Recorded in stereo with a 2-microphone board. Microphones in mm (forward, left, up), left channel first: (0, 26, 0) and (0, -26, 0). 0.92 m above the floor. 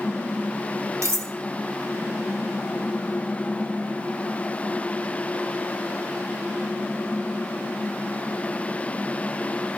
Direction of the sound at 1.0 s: 70° right (ahead or behind).